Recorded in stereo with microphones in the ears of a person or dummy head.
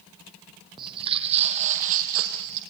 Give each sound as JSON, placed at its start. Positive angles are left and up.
{"t": 0.8, "sound": "footsteps", "side_deg": -25, "distance_m": 2.0}